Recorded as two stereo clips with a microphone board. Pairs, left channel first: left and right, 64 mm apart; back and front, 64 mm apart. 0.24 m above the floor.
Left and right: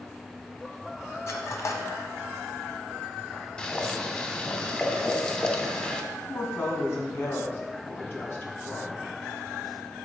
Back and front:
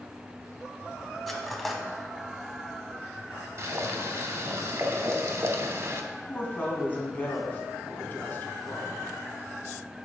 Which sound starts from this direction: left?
Cutlery clinking, at 1.3 s.